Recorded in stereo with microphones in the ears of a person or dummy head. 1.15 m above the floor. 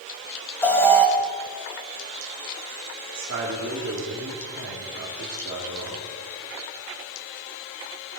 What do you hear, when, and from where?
0.6 s an alarm: 10° left (ahead or behind), 2 m
3.1 s a man speaking: 65° right (ahead or behind), 2 m